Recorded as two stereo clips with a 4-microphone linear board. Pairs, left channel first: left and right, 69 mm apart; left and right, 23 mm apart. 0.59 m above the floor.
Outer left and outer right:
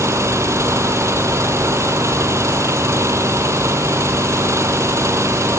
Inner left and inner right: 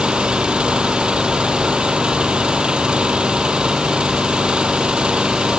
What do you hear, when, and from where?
0.0 s an engine running: 45° right (ahead or behind)